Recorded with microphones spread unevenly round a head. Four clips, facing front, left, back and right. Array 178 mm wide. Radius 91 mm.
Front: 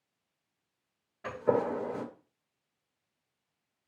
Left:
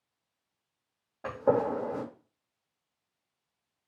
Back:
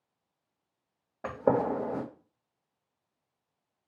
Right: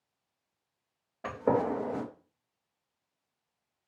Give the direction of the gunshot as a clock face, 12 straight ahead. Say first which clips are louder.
Left 1 dB, back 2 dB; 6 o'clock.